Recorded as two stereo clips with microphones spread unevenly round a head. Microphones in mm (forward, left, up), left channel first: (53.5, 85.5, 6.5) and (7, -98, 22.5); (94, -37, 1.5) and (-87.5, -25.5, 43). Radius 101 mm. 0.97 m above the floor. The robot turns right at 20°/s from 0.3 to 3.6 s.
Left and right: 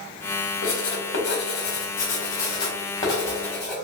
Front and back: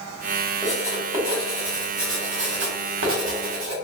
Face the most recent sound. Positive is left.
turn(degrees=160)